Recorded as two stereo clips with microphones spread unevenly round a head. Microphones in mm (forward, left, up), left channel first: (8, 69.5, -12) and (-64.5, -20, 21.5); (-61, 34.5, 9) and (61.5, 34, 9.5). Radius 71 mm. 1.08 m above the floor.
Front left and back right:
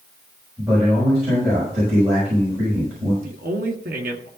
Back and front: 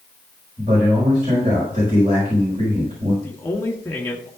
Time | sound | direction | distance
0.6 | a man speaking | 55° right | 5.5 m
3.2 | a man speaking | 105° right | 1.9 m